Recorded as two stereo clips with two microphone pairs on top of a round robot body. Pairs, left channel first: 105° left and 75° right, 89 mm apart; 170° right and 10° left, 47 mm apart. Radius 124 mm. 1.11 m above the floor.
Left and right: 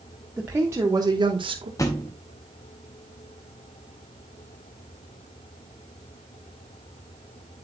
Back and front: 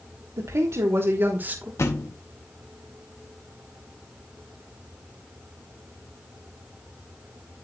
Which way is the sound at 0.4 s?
Straight ahead.